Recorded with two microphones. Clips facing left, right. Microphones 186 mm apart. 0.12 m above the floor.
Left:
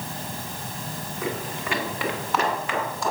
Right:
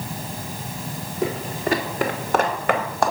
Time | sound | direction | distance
1.2 | footsteps | 30° right (ahead or behind) | 2.5 m